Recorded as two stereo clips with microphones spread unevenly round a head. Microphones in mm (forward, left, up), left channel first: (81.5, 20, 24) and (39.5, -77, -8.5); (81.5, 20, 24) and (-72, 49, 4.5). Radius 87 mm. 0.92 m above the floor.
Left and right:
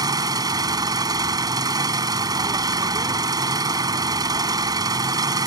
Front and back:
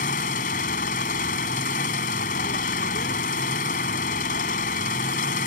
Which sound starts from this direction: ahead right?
An engine running, at 0.0 s.